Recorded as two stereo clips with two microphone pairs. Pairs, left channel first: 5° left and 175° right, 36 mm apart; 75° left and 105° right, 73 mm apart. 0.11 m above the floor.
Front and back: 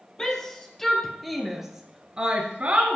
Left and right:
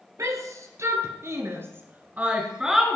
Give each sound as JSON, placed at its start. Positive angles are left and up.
{"t": 0.2, "sound": "a shout", "azimuth_deg": -65, "distance_m": 2.5}